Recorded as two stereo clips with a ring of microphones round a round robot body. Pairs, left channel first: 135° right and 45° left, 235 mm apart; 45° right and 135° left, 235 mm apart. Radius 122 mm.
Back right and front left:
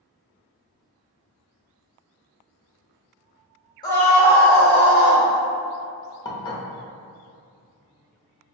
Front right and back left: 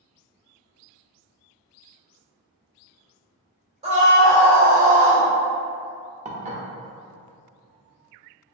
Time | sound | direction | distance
3.8 | a scream | 170° left | 1.0 m
6.2 | dishes clattering | 165° left | 0.6 m